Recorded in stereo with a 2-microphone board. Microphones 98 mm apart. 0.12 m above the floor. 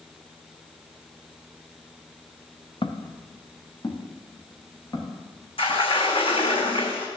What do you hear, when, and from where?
2.8 s footsteps: 60° left (ahead or behind), 1.2 m; by 5.8 s 35° left (ahead or behind), 5 m
5.6 s a sliding door: 70° left (ahead or behind), 2 m